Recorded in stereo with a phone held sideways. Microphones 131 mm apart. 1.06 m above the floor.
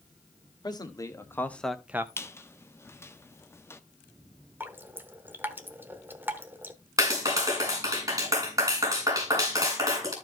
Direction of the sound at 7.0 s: 25° right (ahead or behind).